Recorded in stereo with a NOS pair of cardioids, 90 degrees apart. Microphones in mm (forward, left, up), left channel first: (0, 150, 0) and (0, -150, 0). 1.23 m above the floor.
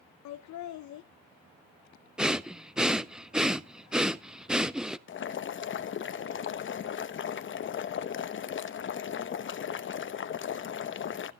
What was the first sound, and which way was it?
Laughter, 70° left.